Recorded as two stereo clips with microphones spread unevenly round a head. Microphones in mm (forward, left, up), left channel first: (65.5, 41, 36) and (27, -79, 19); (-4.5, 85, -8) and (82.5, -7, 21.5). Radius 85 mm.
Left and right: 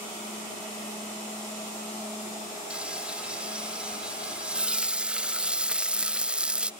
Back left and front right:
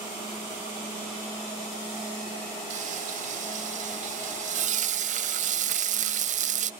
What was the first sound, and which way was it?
Frying, 25° right.